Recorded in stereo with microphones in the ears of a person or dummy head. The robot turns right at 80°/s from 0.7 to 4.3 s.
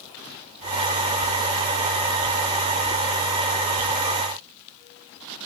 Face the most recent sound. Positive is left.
No sound to turn to.